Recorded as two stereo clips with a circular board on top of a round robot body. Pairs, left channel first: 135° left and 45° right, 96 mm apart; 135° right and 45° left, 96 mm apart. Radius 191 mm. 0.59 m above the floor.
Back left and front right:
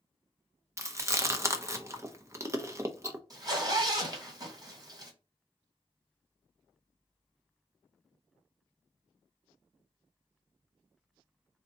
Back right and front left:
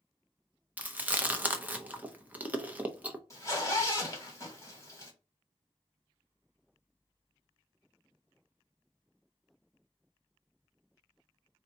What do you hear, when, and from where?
0.8 s chewing: 15° right, 1.0 m
3.3 s a zipper: 85° right, 1.8 m